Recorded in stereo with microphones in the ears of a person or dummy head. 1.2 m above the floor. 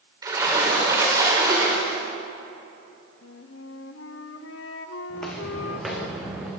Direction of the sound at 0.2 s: 20° right (ahead or behind).